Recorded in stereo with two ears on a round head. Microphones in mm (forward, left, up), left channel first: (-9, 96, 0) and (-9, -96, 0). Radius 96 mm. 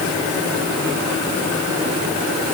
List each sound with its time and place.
Only background noise.